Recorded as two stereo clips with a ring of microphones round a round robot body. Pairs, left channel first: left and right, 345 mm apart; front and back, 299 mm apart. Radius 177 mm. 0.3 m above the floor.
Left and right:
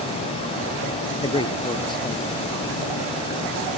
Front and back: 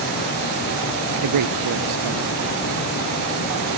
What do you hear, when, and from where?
1.2 s a man speaking: 165° left